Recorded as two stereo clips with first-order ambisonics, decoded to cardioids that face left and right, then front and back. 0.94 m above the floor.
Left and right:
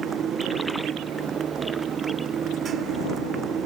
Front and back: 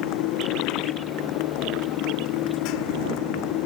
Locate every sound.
0.0 s a motorcycle: 25° right